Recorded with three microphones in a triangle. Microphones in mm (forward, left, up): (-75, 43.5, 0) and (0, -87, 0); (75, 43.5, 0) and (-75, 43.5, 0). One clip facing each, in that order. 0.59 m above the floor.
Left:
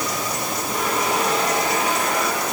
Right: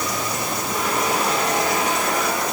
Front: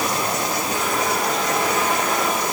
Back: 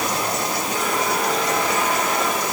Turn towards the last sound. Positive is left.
No sound to turn to.